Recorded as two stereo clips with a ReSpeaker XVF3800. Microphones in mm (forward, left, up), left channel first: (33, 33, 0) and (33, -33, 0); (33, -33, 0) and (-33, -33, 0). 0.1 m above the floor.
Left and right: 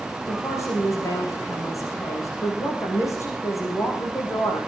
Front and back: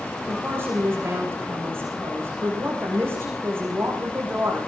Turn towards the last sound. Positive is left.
turn(degrees=130)